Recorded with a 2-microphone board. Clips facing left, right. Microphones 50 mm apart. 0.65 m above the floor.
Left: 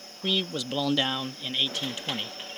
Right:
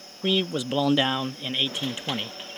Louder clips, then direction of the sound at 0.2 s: Right 4 dB; 20° right (ahead or behind).